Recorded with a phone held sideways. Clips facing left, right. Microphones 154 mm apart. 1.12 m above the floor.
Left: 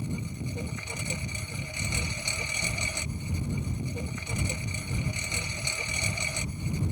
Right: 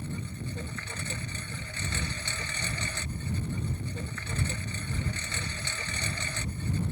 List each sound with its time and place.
0.0 s a lawn mower: 15° left (ahead or behind)